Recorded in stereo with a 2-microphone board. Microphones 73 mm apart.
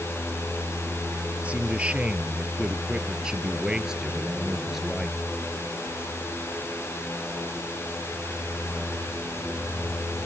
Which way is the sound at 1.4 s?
20° right (ahead or behind).